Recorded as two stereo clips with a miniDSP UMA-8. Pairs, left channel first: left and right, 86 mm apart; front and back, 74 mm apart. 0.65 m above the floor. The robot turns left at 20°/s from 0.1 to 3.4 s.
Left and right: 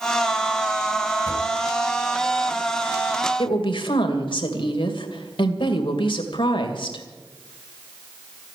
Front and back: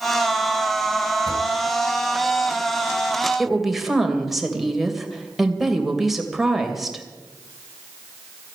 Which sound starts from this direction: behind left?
A drawer, at 1.3 s.